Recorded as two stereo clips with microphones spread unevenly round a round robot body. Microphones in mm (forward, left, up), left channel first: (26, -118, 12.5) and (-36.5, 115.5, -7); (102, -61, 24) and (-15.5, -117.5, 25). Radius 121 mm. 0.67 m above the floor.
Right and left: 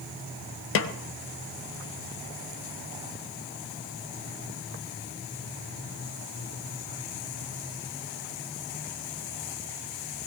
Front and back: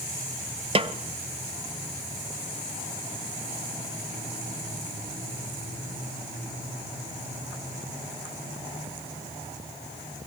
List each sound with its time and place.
0.8 s a snare drum: 110° right, 0.9 m